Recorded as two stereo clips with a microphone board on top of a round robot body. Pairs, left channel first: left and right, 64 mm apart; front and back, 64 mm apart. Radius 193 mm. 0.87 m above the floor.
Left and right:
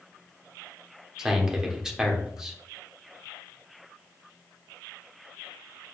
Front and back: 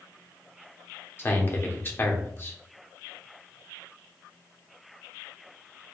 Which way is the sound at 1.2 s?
15° right.